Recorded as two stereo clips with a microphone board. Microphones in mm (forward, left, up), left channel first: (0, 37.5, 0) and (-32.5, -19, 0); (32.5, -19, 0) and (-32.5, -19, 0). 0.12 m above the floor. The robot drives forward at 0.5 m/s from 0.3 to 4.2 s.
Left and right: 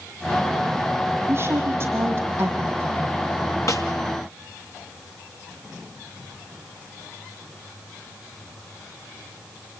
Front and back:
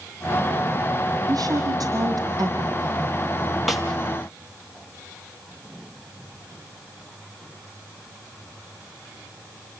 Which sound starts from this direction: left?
A snare drum, at 3.7 s.